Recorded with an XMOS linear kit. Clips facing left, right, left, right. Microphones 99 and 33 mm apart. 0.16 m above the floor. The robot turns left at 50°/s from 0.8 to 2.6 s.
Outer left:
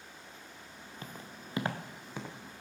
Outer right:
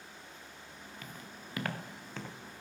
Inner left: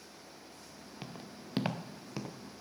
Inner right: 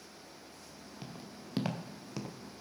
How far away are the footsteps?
About 1.4 m.